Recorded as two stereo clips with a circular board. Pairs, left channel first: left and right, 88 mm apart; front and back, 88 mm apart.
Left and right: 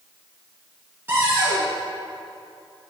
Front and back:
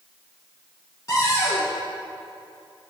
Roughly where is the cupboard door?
Ahead right.